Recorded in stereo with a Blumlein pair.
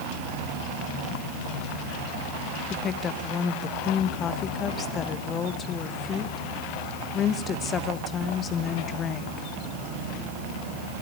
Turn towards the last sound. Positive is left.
turn(degrees=25)